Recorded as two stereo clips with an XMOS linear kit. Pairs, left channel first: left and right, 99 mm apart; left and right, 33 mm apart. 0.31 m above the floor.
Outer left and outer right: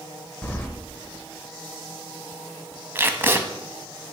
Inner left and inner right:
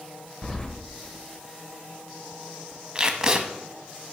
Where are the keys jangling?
20° left (ahead or behind), 0.6 m.